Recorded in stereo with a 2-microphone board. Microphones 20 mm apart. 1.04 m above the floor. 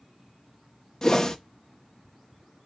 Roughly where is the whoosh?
Left.